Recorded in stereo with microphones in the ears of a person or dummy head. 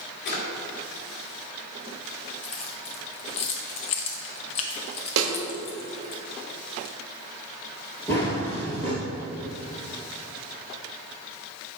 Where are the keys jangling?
35° left (ahead or behind), 0.8 m.